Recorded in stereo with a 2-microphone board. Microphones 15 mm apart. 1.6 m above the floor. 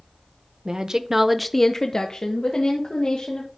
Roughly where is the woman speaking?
Right.